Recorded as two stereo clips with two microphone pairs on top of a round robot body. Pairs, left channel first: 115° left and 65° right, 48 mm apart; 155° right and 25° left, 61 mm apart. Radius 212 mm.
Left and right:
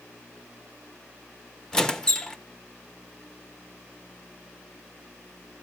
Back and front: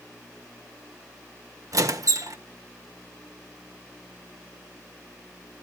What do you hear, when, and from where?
1.7 s a squeak: 45° left, 1.4 m